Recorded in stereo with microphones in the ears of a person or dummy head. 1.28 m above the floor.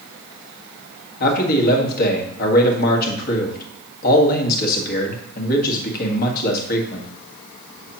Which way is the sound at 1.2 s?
55° left (ahead or behind).